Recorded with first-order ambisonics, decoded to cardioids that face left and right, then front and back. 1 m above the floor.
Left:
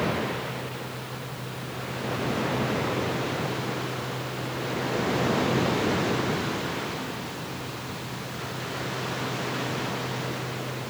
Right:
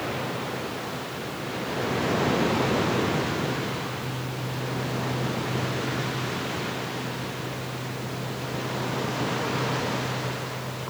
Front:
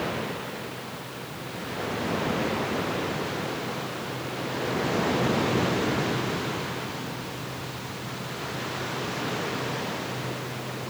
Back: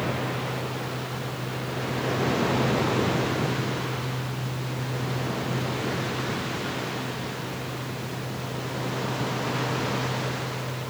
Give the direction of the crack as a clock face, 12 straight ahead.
No crack in this recording.